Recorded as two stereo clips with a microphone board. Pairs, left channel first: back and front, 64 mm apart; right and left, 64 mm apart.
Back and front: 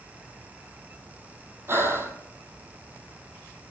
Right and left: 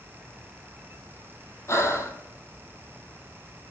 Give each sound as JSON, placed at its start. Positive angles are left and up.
{"t": 1.7, "sound": "breathing", "azimuth_deg": -50, "distance_m": 1.3}